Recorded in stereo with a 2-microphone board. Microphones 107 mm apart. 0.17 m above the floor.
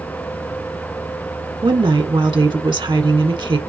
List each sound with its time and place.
1.6 s a woman speaking: 50° right (ahead or behind), 1.5 m